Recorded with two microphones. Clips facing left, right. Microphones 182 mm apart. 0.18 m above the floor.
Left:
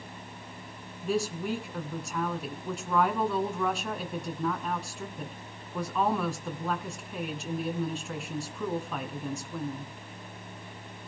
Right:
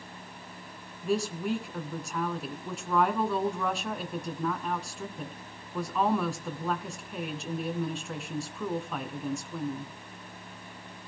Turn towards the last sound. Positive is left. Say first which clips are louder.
# right 1 dB
turn(degrees=0)  # may be behind; listen again after turning